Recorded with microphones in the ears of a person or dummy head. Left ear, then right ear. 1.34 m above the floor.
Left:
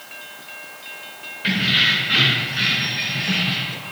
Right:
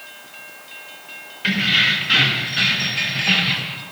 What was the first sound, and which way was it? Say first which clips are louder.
Keys jangling: right 1 dB; 25° right (ahead or behind).